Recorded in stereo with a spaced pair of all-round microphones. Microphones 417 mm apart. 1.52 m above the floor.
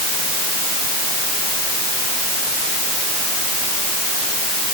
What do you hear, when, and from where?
Only background noise.